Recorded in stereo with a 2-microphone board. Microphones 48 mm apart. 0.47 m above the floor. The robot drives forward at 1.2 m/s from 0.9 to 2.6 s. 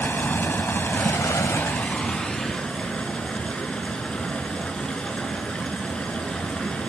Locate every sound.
0.0 s running water: 45° left (ahead or behind), 0.7 m; by 6.9 s 20° left (ahead or behind), 1.6 m